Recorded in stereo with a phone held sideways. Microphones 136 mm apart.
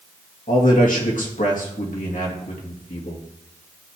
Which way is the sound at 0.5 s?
75° left (ahead or behind).